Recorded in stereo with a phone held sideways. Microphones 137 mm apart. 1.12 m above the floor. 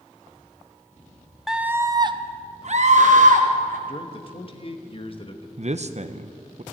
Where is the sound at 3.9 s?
40° left (ahead or behind), 1.2 m.